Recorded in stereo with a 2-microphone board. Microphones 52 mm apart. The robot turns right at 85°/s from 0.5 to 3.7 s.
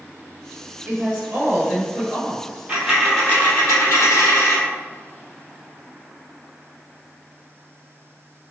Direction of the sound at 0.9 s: 105° right.